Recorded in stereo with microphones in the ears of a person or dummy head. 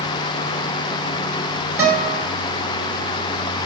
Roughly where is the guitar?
Centre.